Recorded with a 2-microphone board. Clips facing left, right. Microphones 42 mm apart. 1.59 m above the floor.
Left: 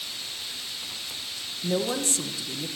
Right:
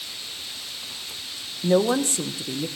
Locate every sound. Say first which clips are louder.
1.6 s a woman speaking: right 7 dB; 35° right (ahead or behind), 1.6 m